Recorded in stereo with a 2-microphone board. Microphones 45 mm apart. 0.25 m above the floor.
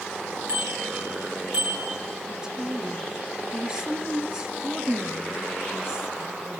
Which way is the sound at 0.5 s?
55° right (ahead or behind).